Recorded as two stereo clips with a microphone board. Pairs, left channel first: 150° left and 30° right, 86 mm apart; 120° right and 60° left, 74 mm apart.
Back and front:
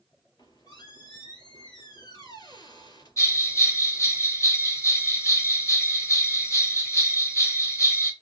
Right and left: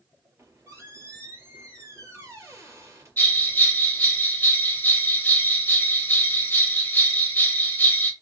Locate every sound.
0.4 s a squeak: 110° left, 4 m
3.2 s a bell: 175° right, 1.3 m